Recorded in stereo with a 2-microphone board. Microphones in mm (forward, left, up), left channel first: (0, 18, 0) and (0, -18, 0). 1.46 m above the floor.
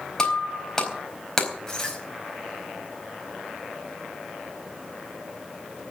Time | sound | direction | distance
0.2 | breaking glass | 15° left (ahead or behind) | 4 m